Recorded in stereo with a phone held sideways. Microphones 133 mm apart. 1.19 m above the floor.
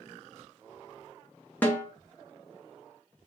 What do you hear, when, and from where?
1.6 s a snare drum: 15° left (ahead or behind), 0.8 m